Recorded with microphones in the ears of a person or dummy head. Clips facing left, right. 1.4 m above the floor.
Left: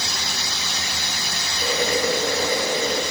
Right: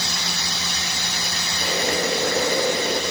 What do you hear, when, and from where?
1.6 s boiling: 45° right (ahead or behind), 3 m